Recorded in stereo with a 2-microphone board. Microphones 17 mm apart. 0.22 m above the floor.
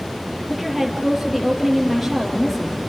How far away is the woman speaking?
About 5.5 m.